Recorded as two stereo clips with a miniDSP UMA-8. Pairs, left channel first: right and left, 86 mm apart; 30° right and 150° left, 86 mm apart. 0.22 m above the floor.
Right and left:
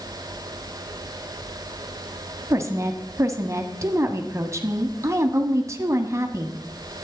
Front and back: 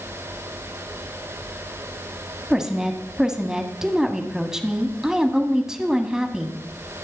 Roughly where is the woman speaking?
Left.